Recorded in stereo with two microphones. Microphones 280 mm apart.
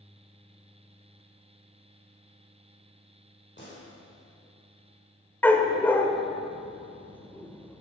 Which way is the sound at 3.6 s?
40° left (ahead or behind).